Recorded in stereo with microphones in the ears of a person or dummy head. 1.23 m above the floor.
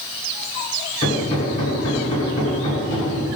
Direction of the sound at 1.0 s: 30° left (ahead or behind).